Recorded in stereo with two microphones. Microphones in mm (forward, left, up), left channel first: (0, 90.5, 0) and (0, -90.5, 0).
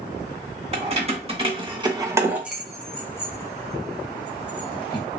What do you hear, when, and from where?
0.7 s keys jangling: 35° right (ahead or behind), 1.1 m; by 5.1 s 30° left (ahead or behind), 1.7 m